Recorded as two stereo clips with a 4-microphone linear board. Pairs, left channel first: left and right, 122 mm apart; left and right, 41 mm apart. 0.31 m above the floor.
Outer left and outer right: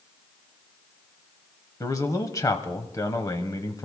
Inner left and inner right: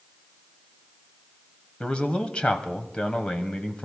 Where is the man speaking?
30° left (ahead or behind), 1.4 m.